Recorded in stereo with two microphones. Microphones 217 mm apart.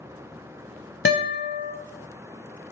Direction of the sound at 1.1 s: 60° left (ahead or behind).